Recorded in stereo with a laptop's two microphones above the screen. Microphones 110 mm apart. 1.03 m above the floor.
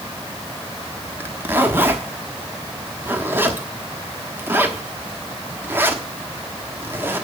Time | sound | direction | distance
1.2 | a zipper | 20° right (ahead or behind) | 1.1 m